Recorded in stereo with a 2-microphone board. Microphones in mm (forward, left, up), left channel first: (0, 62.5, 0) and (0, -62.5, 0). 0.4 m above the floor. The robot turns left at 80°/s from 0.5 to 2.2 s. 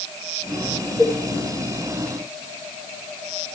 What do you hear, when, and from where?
1.0 s a cowbell: 10° right (ahead or behind), 8 m; by 1.2 s 25° right (ahead or behind), 8 m